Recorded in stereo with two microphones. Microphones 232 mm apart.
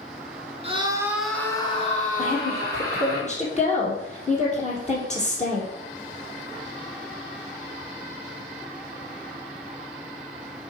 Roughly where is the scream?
Right.